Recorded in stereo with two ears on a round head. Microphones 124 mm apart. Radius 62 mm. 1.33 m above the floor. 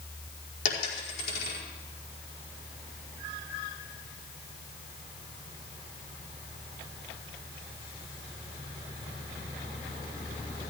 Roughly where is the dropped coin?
Left.